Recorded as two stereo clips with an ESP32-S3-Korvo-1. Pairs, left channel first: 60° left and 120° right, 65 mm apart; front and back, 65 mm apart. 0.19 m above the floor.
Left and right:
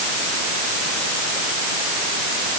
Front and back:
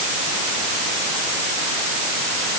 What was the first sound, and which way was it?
Only background noise.